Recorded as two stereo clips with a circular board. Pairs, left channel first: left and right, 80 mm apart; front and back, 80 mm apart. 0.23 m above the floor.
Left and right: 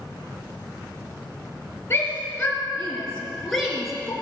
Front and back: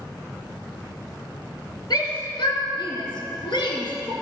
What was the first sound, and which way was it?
A shout, 30° left.